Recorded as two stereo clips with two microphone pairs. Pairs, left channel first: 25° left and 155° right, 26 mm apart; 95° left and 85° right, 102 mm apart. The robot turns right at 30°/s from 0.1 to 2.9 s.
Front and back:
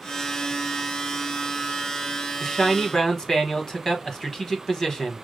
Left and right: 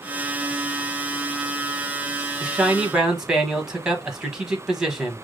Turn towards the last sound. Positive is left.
turn(degrees=-5)